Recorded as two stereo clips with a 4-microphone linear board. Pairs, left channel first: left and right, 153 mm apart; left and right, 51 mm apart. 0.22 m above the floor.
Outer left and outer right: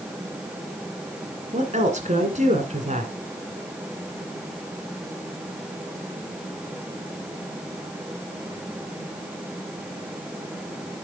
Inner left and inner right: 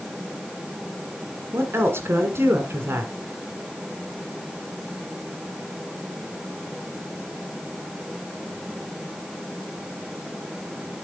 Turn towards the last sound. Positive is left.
turn(degrees=-50)  # may be behind; listen again after turning